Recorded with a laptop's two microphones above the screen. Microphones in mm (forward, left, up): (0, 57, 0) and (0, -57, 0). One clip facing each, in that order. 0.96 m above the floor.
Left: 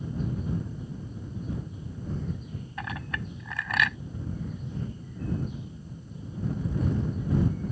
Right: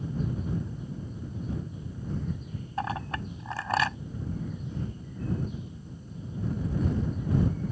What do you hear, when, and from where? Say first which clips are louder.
2.8 s a clink: right 5 dB; 35° right (ahead or behind)